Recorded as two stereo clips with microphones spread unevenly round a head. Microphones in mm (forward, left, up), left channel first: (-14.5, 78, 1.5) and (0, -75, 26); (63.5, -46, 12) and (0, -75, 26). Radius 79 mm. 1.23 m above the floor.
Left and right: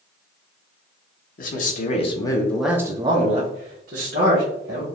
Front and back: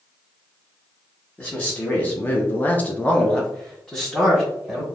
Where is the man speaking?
90° left, 1.0 m; by 4.8 s 55° right, 1.6 m.